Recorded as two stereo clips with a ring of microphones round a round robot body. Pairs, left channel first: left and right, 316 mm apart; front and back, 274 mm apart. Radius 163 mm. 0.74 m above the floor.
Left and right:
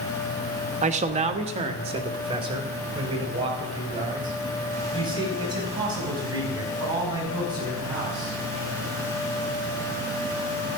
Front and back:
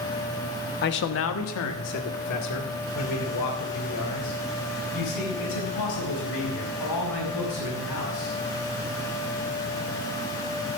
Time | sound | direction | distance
0.8 | a man speaking | 30° right | 0.9 m